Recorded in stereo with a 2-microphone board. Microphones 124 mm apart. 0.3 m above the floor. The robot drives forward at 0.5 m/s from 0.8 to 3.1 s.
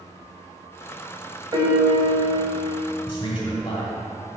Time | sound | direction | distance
1.5 | a piano | 35° right (ahead or behind) | 0.8 m
3.1 | a man speaking | 45° left (ahead or behind) | 1.9 m